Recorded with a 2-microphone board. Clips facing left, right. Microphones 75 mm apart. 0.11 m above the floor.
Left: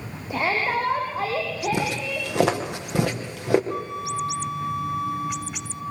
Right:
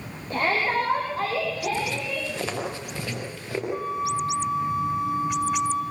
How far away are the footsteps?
About 5.5 m.